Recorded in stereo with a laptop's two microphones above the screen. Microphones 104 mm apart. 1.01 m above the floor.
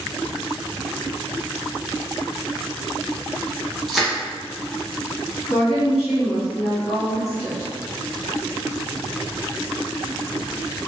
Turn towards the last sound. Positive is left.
turn(degrees=70)  # may be behind; listen again after turning